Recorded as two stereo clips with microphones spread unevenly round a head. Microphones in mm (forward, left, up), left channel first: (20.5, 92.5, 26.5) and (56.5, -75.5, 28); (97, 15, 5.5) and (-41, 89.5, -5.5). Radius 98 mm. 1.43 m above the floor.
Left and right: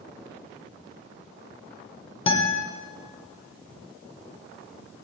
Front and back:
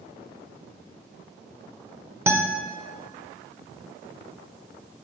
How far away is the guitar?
About 1.2 m.